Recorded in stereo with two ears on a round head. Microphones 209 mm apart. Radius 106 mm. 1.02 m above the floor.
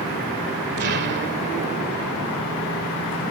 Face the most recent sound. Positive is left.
turn(degrees=-45)  # may be behind; listen again after turning